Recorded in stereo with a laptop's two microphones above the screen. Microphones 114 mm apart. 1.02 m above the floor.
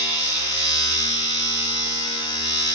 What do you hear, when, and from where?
0.0 s a machine running: 35° left (ahead or behind), 1.0 m